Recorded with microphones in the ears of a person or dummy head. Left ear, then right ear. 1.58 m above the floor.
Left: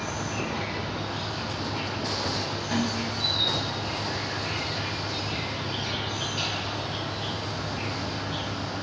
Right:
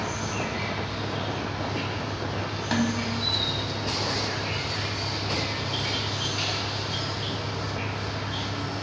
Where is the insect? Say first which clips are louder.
Right 1 dB; 55° left (ahead or behind), 1.8 m.